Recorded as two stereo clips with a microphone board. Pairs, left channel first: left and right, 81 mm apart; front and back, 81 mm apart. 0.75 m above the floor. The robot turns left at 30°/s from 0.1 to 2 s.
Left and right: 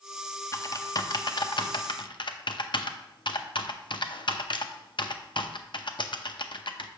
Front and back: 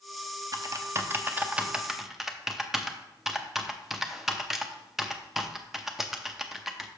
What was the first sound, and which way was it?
Typing on a keyboard, 140° left.